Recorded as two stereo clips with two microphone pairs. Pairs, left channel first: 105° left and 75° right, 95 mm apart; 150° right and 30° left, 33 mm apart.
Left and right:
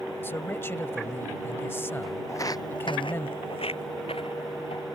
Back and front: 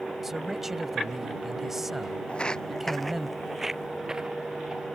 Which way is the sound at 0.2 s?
95° left.